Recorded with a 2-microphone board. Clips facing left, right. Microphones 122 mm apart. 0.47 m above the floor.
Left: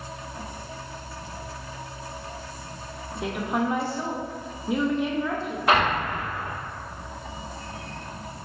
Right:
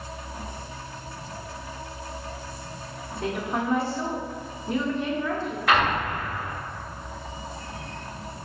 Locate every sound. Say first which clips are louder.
3.2 s a woman speaking: left 1 dB; 10° left (ahead or behind), 0.8 m
5.7 s an explosion: left 1 dB; 25° left (ahead or behind), 1.1 m